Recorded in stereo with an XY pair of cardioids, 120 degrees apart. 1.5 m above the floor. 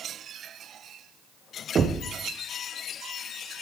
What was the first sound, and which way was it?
Knocking, 35° right.